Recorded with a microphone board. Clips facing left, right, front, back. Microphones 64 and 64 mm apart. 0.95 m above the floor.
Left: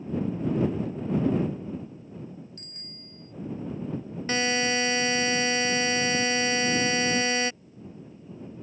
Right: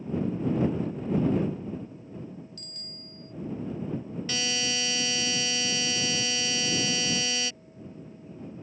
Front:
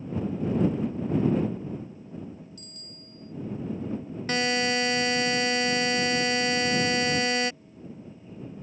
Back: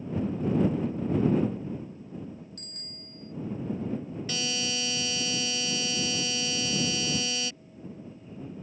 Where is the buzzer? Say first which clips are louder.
Left 8 dB, front 10 dB; 40° left.